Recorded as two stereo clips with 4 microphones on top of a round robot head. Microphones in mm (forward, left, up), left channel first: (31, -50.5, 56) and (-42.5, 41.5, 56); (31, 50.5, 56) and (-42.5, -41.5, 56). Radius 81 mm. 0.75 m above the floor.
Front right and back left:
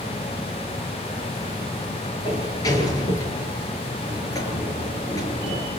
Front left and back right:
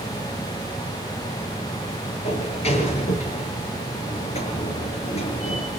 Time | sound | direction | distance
2.2 | a sliding door | 10° left | 5 m